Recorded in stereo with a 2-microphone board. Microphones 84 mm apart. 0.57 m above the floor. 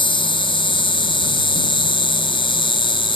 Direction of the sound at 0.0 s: 90° left.